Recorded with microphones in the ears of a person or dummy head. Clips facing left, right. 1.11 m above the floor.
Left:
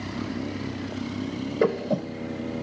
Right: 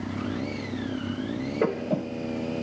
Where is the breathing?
45° left (ahead or behind), 3 m.